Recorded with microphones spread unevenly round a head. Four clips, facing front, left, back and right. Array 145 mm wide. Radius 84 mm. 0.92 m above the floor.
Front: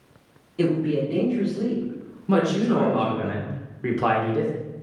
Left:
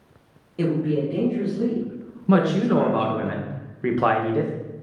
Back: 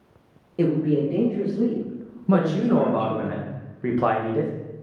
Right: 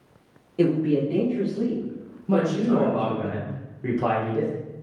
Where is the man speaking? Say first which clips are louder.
Left 2 dB, back 1 dB; 95° left, 0.8 m.